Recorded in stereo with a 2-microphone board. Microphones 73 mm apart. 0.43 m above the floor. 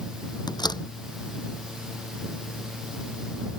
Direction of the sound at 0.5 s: 70° left (ahead or behind).